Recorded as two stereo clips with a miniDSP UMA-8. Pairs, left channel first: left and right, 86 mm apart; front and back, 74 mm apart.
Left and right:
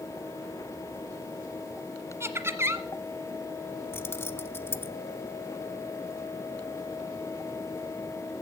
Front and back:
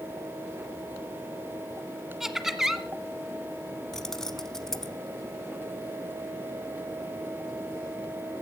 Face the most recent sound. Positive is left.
turn(degrees=75)